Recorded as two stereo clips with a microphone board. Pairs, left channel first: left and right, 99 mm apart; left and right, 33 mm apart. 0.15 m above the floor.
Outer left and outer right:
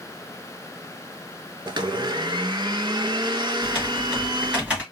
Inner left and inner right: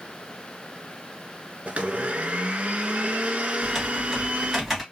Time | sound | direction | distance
1.7 | a blender | 50° right (ahead or behind) | 0.5 m
3.6 | typing on a keyboard | 10° right (ahead or behind) | 2 m